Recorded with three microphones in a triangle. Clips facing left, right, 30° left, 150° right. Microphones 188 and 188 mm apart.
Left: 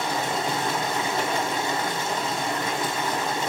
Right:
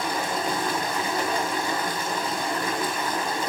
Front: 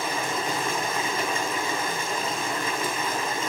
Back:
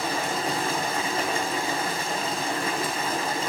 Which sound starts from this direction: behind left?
Running water, at 0.0 s.